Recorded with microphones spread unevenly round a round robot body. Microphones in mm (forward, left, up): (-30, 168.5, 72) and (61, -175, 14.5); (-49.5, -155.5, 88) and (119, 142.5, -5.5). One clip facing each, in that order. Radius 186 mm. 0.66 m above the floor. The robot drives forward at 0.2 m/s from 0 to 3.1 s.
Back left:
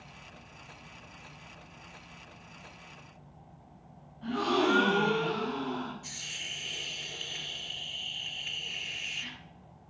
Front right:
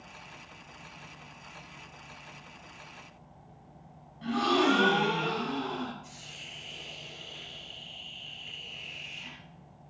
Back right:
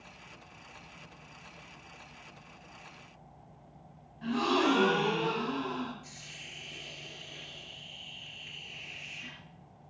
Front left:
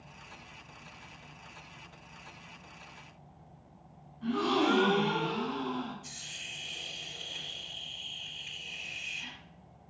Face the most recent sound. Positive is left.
turn(degrees=145)